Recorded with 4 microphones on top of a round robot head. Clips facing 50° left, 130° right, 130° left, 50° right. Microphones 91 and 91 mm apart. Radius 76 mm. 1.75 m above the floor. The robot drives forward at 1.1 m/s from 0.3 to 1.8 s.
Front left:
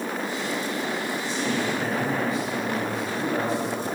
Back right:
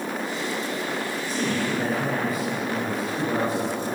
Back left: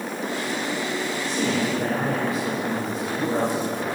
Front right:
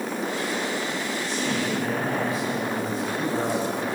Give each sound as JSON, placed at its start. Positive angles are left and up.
{"t": 1.2, "sound": "a man speaking", "azimuth_deg": 180, "distance_m": 7.0}